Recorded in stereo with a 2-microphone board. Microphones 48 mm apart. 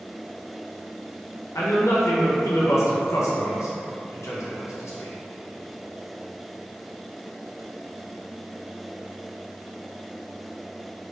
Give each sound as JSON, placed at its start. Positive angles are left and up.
{"t": 1.6, "sound": "a man speaking", "side_deg": 80, "distance_m": 0.7}